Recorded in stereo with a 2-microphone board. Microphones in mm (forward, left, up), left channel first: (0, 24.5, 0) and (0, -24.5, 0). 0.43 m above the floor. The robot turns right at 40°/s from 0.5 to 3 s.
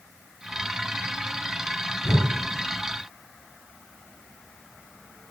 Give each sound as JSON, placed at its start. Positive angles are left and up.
{"t": 2.0, "sound": "a whoosh", "side_deg": 60, "distance_m": 0.9}